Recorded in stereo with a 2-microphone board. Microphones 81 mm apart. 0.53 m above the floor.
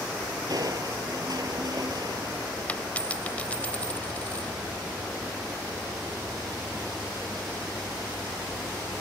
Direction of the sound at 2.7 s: 20° left (ahead or behind).